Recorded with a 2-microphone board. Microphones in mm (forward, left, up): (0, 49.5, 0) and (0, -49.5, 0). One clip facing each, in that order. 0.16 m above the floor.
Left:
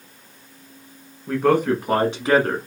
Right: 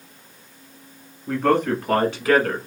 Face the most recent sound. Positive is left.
turn(degrees=30)  # may be behind; listen again after turning